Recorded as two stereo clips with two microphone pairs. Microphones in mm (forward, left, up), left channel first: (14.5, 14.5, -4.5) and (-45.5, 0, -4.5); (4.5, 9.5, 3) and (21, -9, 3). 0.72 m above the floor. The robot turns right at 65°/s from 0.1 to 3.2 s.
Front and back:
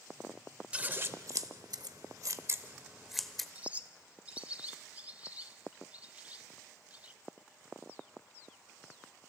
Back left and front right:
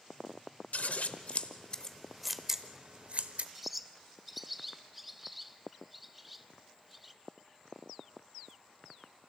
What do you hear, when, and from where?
0.7 s scissors: 125° left, 0.9 m; by 3.5 s 75° right, 0.9 m
3.5 s a bird: 130° right, 0.5 m